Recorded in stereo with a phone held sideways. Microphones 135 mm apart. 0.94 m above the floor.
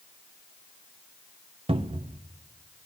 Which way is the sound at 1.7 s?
45° right (ahead or behind).